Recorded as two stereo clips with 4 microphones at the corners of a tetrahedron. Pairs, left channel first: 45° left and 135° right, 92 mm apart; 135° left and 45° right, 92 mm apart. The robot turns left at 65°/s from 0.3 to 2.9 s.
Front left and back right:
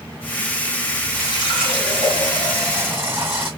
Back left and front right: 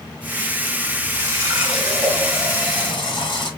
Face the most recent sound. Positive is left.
turn(degrees=155)